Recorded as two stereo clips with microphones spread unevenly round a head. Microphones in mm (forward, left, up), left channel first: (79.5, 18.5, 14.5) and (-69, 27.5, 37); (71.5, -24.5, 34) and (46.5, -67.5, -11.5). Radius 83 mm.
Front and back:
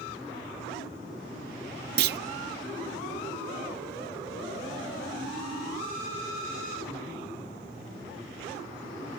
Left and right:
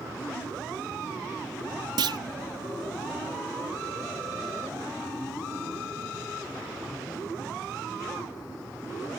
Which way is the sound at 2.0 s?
160° right.